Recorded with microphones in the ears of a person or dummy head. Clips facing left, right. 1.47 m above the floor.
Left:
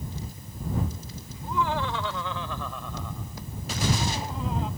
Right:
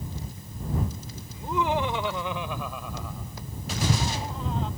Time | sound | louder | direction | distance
1.3 | laughter | right 2 dB | 25° right (ahead or behind) | ?